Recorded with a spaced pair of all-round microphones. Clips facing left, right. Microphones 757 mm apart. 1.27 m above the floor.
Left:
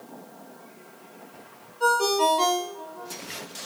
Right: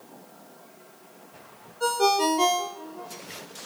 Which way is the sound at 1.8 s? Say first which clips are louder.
Even; 45° right (ahead or behind).